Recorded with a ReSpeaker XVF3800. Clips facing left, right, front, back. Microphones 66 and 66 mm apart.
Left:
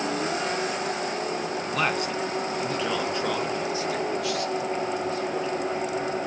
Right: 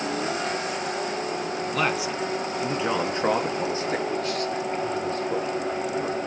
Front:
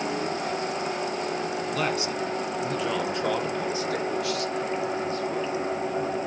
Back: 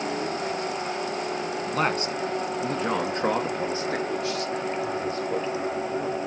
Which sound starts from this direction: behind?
A man speaking, at 1.7 s.